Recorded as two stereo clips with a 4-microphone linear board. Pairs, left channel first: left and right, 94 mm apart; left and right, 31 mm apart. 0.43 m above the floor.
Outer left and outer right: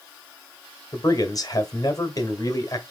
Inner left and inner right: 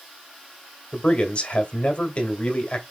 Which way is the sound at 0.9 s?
40° left (ahead or behind).